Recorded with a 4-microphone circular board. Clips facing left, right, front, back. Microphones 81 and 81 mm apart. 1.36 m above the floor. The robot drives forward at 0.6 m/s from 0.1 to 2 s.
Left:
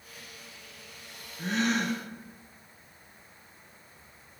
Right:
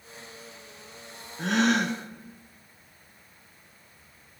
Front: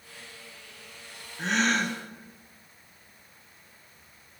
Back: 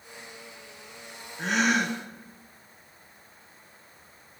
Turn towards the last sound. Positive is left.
turn(degrees=-110)